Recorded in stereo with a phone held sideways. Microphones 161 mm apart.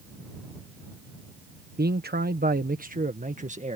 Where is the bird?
I don't hear a bird.